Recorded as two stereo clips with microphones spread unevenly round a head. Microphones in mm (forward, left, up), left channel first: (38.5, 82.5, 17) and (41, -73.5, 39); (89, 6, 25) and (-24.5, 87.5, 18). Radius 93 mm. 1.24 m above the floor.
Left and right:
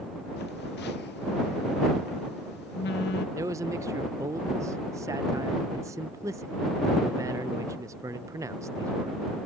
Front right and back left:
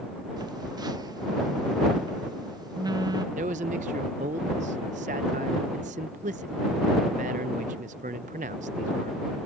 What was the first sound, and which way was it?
A phone buzzing, 85° left.